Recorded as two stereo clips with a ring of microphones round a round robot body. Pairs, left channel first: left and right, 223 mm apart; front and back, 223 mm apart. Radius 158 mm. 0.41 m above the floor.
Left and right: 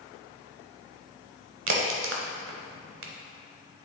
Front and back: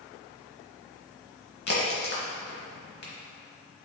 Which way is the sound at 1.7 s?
60° right.